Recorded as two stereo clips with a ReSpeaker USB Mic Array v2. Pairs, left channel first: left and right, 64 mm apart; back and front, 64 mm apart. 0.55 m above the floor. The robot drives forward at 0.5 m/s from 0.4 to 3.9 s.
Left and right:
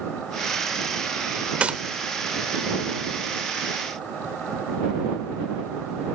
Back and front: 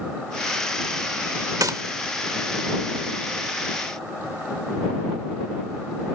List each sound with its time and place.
1.6 s a gunshot: 20° right; by 1.8 s 25° right